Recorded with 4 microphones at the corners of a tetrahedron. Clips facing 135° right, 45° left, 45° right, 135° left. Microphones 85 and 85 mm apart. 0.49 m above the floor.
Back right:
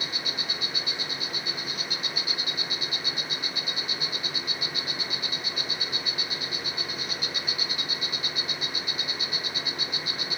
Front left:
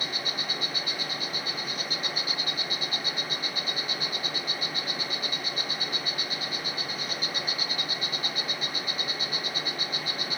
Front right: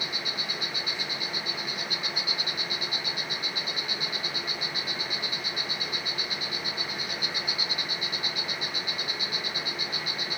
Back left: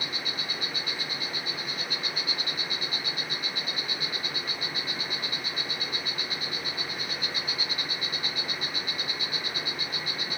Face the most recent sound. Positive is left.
turn(degrees=20)